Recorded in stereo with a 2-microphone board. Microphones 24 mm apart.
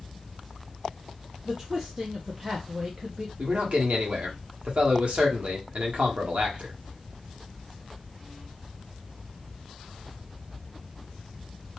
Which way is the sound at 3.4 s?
55° right (ahead or behind).